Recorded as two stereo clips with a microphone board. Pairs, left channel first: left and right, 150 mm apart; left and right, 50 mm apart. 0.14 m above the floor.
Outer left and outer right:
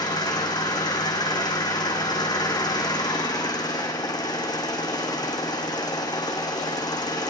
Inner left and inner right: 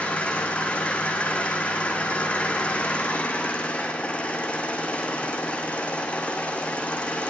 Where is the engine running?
25° left (ahead or behind), 2.5 m.